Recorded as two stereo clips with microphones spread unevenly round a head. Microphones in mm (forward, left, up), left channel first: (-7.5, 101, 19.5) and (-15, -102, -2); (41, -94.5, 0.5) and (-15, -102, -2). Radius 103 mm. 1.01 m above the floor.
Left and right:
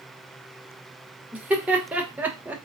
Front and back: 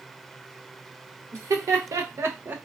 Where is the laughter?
170° right, 1.1 m; by 2.6 s 160° right, 0.5 m.